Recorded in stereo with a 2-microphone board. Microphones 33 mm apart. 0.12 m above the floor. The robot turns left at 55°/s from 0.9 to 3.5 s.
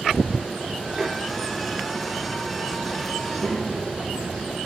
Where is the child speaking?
25° left (ahead or behind), 2.5 m; by 4.6 s 40° left (ahead or behind), 2.5 m.